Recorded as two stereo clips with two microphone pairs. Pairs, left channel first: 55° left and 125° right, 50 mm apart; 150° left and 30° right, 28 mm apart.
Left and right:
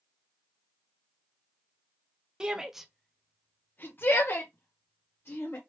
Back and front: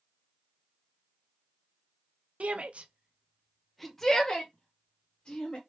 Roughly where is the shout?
Ahead right.